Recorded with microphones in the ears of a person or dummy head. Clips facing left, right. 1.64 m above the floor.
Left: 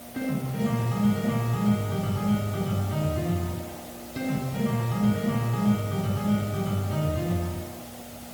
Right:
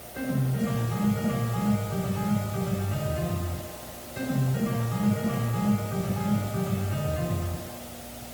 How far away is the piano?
About 4 m.